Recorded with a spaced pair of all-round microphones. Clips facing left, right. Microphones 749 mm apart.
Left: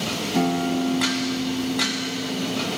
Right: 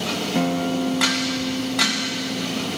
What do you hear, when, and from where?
0.3 s a guitar: 10° right (ahead or behind)